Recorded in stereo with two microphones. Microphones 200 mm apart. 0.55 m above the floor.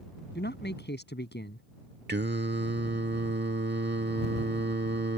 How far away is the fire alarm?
I don't hear a fire alarm.